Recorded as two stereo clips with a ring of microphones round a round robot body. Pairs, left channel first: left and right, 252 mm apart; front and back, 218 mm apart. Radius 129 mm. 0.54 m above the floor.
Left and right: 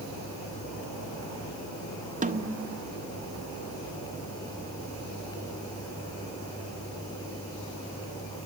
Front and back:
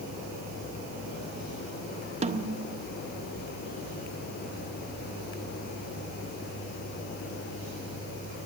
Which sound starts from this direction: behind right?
A snare drum, at 2.2 s.